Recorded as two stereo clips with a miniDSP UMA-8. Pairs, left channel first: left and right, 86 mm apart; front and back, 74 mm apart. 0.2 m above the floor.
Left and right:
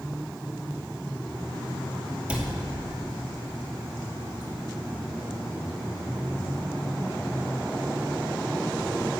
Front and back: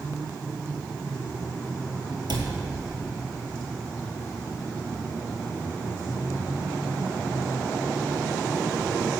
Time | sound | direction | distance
2.3 | a cupboard door | 170° right | 1.8 m